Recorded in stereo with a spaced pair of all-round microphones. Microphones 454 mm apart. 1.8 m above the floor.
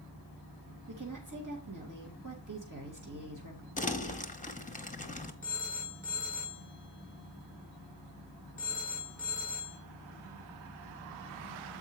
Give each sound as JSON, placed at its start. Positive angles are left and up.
{"t": 0.9, "sound": "a woman speaking", "side_deg": -40, "distance_m": 2.0}
{"t": 3.8, "sound": "crumpling", "side_deg": 15, "distance_m": 0.9}
{"t": 5.4, "sound": "a phone ringing", "side_deg": 15, "distance_m": 4.5}